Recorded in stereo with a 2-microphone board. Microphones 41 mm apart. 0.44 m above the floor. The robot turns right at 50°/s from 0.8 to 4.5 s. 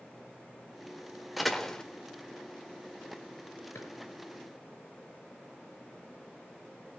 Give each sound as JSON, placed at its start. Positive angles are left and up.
{"t": 1.4, "sound": "a door slam", "side_deg": -5, "distance_m": 1.2}
{"t": 3.8, "sound": "a drawer", "side_deg": 85, "distance_m": 4.5}